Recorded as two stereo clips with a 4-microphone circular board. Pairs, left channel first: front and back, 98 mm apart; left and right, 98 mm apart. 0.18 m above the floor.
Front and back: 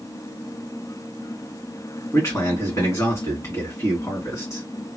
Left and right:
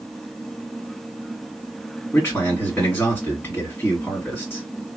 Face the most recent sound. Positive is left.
turn(degrees=45)